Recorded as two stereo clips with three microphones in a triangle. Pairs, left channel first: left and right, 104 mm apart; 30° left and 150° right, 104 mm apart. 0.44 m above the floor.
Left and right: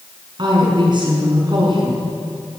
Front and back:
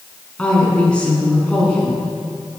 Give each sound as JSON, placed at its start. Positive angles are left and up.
{"t": 0.4, "sound": "a woman speaking", "azimuth_deg": -50, "distance_m": 5.5}